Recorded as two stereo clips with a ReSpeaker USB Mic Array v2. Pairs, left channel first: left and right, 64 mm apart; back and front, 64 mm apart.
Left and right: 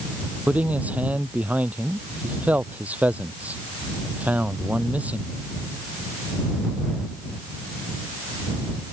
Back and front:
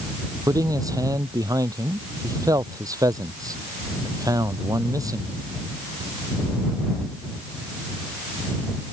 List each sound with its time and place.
0.5 s a man speaking: 20° right